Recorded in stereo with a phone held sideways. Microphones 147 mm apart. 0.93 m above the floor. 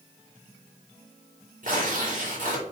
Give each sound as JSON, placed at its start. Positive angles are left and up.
{"t": 1.6, "sound": "tearing paper", "side_deg": -60, "distance_m": 3.5}